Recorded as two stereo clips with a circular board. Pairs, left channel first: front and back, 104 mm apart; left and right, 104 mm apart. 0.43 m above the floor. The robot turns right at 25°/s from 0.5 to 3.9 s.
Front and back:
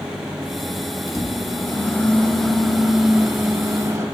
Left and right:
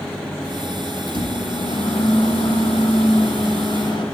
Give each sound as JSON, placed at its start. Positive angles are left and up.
{"t": 1.1, "sound": "a microwave", "azimuth_deg": 50, "distance_m": 1.9}